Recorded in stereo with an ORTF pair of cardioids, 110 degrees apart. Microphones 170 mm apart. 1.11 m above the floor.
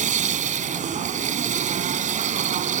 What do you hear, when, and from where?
0.0 s a machine running: 45° right